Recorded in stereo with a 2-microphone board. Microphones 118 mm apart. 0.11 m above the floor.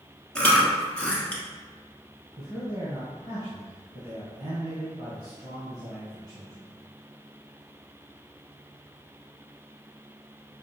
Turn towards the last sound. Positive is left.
turn(degrees=-35)  # may be behind; listen again after turning